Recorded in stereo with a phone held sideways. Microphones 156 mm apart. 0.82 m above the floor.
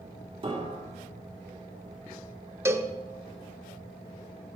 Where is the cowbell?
20° right (ahead or behind), 0.7 m.